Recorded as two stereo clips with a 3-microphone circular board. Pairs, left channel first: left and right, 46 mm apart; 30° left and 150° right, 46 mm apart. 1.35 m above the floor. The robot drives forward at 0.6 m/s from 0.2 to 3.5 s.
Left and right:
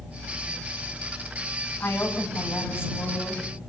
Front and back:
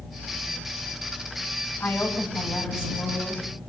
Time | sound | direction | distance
1.8 | a woman speaking | 50° left | 7.5 m